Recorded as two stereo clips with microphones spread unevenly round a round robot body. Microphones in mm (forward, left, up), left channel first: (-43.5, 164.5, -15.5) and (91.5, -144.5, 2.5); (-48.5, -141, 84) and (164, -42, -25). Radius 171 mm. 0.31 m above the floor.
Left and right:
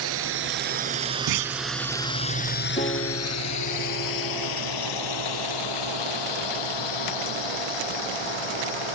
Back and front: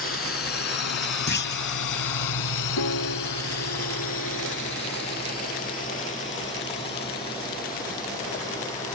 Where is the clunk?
100° right.